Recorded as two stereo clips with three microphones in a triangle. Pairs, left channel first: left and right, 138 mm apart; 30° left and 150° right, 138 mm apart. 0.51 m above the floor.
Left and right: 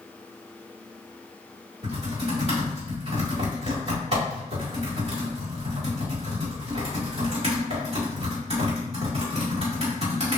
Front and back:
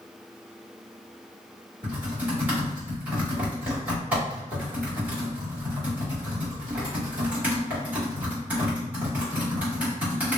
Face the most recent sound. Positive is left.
turn(degrees=-75)